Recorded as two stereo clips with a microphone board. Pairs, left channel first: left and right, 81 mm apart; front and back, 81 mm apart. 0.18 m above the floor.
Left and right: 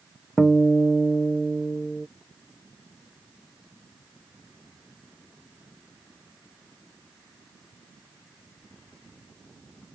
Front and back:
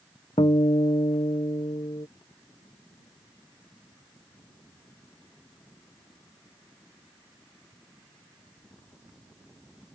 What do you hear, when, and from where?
0.4 s a guitar: 5° left